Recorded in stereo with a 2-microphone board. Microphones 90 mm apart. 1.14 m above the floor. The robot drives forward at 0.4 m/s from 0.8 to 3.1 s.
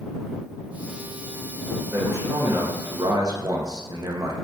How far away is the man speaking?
About 1.3 m.